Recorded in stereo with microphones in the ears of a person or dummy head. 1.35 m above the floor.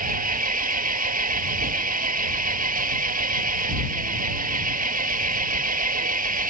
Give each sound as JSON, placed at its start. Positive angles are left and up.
{"t": 0.0, "sound": "an engine running", "side_deg": -45}